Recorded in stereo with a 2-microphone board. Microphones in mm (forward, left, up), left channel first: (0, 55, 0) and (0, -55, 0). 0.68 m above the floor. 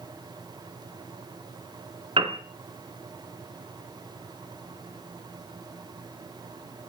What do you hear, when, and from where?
2.2 s a piano: 55° right (ahead or behind), 2.5 m